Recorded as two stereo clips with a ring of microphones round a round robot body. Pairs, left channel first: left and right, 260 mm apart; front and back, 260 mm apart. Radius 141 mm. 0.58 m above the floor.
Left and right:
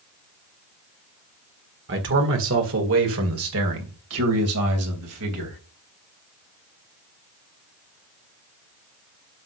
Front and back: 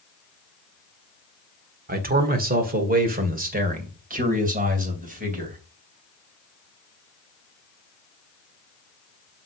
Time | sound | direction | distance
1.9 | a man speaking | 130° right | 1.6 m